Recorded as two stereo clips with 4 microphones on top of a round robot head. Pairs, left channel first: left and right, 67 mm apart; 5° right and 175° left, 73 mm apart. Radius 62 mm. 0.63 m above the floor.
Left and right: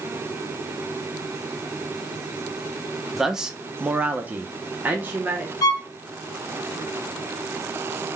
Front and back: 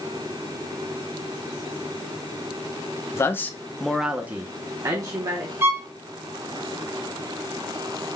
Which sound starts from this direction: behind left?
A violin, at 5.6 s.